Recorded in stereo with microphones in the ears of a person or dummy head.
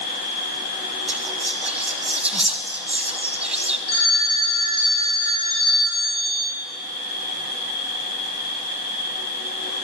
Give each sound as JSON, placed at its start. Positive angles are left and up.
{"t": 0.0, "sound": "an insect", "side_deg": 75, "distance_m": 9.5}
{"t": 1.1, "sound": "whispering", "side_deg": -5, "distance_m": 1.3}
{"t": 3.9, "sound": "a phone ringing", "side_deg": 75, "distance_m": 2.5}